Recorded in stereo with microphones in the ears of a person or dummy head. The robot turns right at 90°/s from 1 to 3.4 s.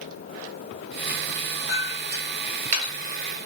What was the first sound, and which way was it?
A clink, 45° right (ahead or behind).